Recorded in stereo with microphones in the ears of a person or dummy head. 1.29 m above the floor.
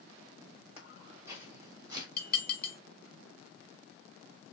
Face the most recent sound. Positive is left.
turn(degrees=10)  # may be behind; listen again after turning